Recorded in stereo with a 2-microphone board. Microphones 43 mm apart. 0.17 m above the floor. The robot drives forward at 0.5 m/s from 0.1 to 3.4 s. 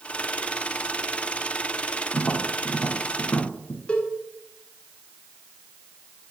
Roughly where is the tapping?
Left.